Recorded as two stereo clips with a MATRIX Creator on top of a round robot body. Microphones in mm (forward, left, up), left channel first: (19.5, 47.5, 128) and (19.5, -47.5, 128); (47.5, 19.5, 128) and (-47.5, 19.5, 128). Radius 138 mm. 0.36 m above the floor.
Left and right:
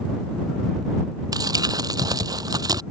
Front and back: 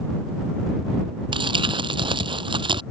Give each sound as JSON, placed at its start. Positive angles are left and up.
{"t": 1.3, "sound": "crumpling", "azimuth_deg": -140}